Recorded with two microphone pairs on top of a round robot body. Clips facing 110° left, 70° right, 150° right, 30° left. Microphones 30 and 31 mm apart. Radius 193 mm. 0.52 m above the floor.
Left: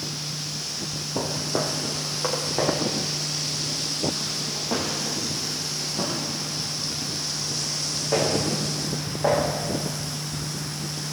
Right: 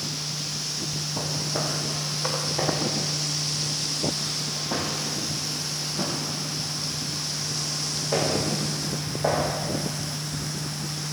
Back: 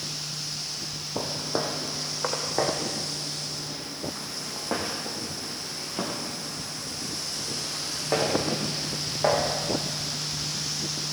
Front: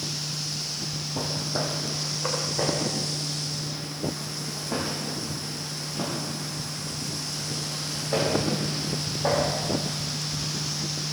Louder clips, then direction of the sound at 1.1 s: Left 4 dB, back 1 dB; 150° left.